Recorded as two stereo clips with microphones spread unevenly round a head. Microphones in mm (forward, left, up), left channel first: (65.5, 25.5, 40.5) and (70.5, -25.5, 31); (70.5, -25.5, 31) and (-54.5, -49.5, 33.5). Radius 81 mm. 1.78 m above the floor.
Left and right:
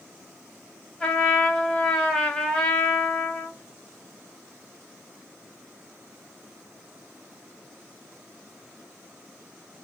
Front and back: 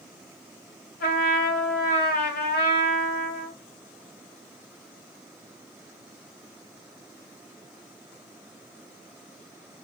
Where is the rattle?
No rattle in this recording.